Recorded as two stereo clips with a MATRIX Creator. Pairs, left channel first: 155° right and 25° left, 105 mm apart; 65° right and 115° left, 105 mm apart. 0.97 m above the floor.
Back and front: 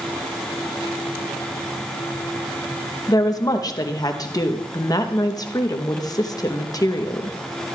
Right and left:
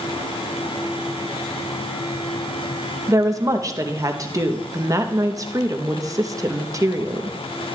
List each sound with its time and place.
3.1 s a woman speaking: 160° left, 0.9 m